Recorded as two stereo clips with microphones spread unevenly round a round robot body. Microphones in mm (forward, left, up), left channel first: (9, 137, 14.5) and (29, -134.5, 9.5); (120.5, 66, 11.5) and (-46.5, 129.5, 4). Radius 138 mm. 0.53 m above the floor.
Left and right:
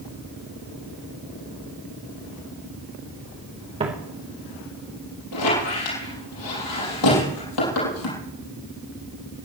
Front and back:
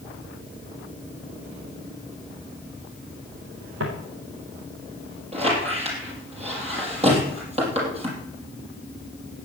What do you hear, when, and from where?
3.8 s footsteps: 155° right, 4 m
5.3 s a squeak: 105° left, 6.5 m